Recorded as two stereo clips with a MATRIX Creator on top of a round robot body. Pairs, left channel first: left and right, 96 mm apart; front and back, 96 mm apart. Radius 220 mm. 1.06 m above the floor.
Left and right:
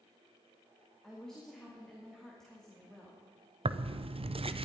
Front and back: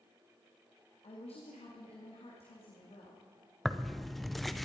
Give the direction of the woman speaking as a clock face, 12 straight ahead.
12 o'clock.